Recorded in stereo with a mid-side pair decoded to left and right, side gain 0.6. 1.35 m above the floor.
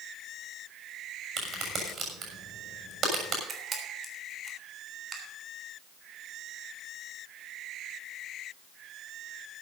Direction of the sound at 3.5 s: 30° right.